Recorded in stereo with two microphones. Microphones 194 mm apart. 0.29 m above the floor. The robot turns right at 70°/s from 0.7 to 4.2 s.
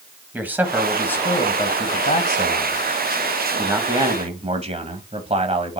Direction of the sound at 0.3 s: 15° right.